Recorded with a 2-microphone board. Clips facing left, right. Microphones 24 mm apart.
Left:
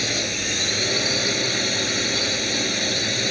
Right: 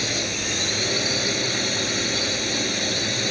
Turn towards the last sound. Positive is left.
turn(degrees=5)  # may be behind; listen again after turning